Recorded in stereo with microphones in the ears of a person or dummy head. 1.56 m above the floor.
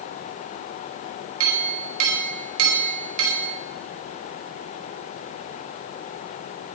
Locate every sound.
1.4 s a clink: 75° right (ahead or behind), 4.5 m